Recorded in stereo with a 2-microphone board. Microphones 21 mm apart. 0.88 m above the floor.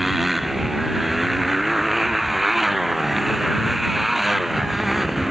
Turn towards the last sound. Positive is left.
turn(degrees=-5)  # may be behind; listen again after turning